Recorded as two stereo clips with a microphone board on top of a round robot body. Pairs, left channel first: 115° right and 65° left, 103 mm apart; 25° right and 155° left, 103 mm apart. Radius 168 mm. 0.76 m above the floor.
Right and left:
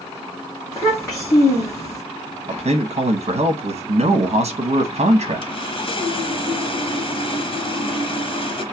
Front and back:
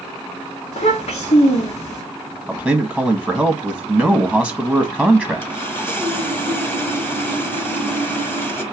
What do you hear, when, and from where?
0.7 s a child speaking: 40° right, 1.7 m
2.5 s a man speaking: 65° left, 1.1 m
5.4 s sawing: 90° right, 1.6 m